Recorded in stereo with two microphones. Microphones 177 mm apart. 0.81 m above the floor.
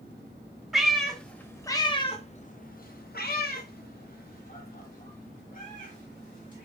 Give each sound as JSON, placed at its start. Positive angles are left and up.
{"t": 0.7, "sound": "a cat meowing", "side_deg": -5, "distance_m": 1.1}